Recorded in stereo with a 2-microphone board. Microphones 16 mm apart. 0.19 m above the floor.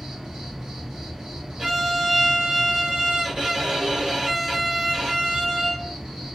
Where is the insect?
60° right (ahead or behind), 1.6 m.